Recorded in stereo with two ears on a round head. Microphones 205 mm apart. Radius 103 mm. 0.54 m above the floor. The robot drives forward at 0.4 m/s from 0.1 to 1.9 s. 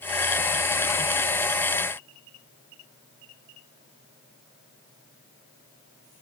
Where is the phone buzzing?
No phone buzzing in this recording.